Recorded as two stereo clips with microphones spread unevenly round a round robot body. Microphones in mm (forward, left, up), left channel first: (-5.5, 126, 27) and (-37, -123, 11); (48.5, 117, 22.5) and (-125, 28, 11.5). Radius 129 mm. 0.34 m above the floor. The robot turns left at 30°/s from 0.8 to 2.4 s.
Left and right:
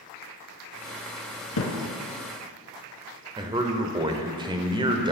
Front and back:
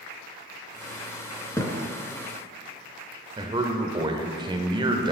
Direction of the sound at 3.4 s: 135° right.